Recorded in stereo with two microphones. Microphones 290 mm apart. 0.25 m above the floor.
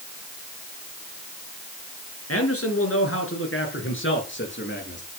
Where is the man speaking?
55° left (ahead or behind), 4.5 m; by 5.0 s 40° left (ahead or behind), 5 m.